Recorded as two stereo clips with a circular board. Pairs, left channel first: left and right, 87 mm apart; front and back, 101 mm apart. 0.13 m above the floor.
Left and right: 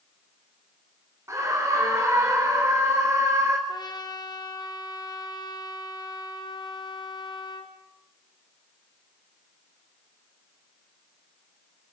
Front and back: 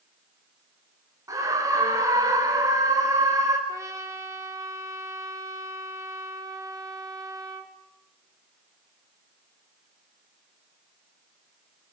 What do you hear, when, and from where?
1.3 s a scream: 135° right, 1.8 m
3.7 s a trumpet: 120° left, 2.5 m